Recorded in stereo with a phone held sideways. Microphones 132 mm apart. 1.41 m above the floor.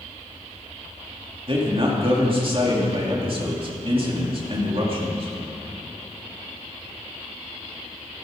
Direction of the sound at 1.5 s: 45° right (ahead or behind).